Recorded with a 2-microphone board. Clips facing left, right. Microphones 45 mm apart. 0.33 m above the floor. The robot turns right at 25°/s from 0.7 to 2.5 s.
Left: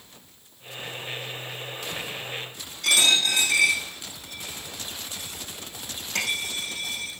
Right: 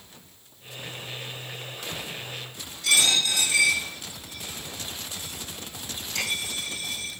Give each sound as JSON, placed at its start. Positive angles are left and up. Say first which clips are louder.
{"t": 2.8, "sound": "a dropped coin", "louder": "left 2 dB", "side_deg": 65, "distance_m": 5.0}